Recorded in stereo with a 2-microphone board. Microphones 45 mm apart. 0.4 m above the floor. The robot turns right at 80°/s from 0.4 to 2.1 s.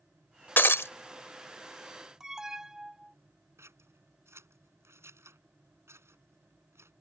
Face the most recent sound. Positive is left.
turn(degrees=-75)  # may be behind; listen again after turning